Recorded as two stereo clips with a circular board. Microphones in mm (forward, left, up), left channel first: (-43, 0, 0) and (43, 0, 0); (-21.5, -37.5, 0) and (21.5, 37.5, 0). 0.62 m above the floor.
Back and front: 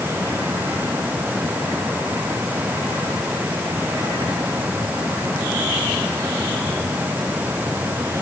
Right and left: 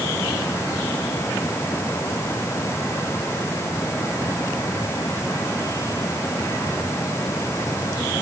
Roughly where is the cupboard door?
I don't hear a cupboard door.